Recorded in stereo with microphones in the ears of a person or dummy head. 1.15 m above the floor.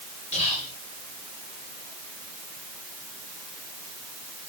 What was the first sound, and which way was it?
Whispering, 40° left (ahead or behind).